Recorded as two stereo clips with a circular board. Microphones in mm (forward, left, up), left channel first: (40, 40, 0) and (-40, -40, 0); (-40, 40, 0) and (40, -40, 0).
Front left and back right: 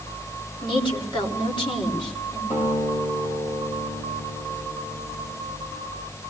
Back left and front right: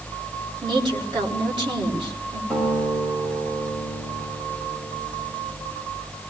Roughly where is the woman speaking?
Ahead.